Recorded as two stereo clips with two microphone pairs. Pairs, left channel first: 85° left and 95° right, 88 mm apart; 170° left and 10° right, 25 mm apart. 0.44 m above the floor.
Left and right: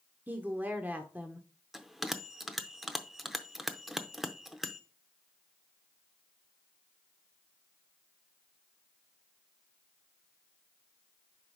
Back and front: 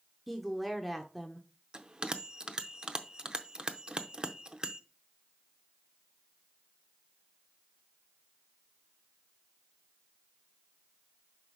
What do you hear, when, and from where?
0.3 s a woman speaking: 115° right, 0.7 m
1.7 s a bell: 20° right, 0.6 m